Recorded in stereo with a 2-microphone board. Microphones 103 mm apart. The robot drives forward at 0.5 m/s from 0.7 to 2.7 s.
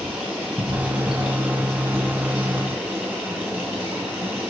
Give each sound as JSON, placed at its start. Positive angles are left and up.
{"t": 0.0, "sound": "running water", "side_deg": -15, "distance_m": 8.0}